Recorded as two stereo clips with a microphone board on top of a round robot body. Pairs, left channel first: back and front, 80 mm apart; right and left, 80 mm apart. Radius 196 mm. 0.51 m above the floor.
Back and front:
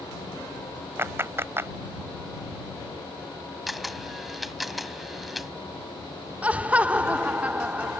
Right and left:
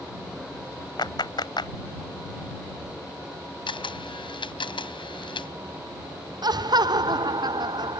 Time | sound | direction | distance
1.0 | a clap | 60° right | ?
3.7 | a camera shutter | 90° right | ?
6.4 | laughter | 70° left | ?